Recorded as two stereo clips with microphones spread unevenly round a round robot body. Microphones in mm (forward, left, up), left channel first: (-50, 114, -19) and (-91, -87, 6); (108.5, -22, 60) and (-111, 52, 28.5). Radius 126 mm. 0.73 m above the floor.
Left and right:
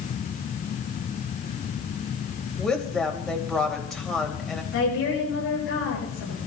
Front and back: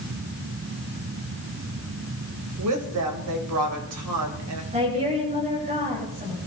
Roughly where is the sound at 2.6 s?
Behind.